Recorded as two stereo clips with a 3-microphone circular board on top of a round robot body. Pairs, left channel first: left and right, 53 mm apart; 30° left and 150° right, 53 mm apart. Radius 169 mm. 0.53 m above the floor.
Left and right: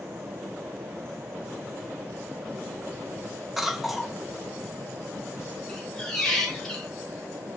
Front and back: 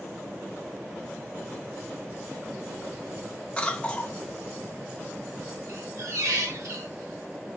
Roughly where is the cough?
Ahead.